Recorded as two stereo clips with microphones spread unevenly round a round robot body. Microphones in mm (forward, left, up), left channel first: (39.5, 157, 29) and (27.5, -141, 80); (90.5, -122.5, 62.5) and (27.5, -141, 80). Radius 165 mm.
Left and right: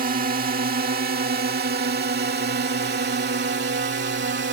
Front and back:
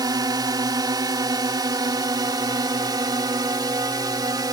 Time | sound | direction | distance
0.0 | a drone | 155° right | ?